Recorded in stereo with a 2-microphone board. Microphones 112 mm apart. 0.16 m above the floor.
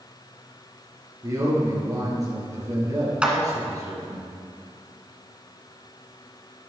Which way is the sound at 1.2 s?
30° right (ahead or behind).